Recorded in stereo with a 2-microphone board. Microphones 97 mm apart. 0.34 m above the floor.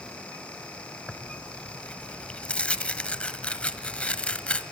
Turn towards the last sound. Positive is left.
turn(degrees=10)  # may be behind; listen again after turning